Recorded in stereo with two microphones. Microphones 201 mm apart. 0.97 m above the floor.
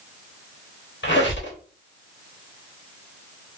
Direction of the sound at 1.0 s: 75° left (ahead or behind).